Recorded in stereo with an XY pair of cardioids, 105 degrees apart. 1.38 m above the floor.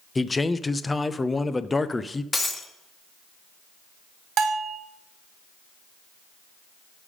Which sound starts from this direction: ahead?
A man speaking, at 0.1 s.